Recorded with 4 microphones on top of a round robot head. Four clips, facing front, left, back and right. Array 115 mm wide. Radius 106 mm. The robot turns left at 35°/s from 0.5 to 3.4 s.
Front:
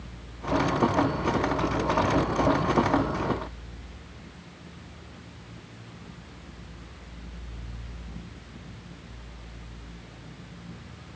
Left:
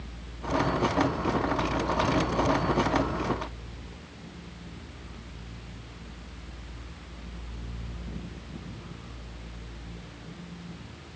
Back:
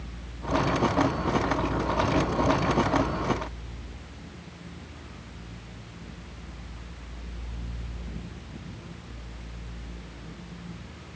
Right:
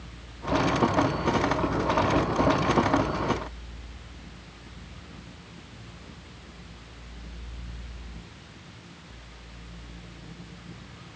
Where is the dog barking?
No dog barking in this recording.